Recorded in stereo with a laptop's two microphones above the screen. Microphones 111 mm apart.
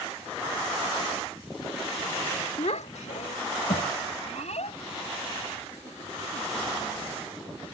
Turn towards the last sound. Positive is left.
turn(degrees=70)  # may be behind; listen again after turning